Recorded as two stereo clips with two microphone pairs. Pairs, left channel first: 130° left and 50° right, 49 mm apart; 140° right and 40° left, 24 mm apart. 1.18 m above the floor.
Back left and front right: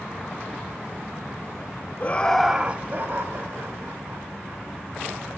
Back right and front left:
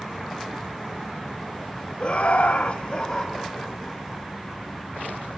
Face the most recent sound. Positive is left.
turn(degrees=-70)